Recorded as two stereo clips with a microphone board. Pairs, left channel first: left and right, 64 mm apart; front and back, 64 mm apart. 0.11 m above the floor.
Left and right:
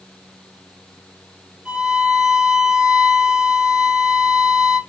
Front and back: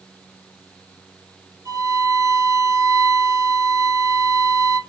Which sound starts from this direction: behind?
A violin, at 1.6 s.